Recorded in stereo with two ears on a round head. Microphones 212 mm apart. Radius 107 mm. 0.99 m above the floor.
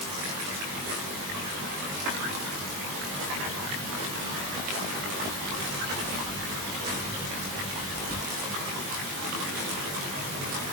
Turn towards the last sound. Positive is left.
No sound to turn to.